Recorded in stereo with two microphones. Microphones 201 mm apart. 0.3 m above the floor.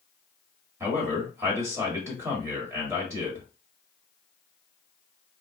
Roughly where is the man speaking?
Centre.